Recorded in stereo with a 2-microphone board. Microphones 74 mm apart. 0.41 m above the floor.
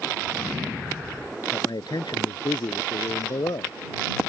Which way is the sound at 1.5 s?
70° left (ahead or behind).